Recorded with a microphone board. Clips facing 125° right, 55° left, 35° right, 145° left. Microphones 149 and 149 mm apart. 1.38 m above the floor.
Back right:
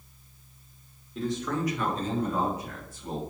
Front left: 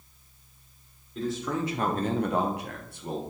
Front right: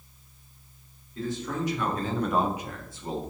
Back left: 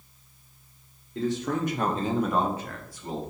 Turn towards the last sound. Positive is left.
turn(degrees=25)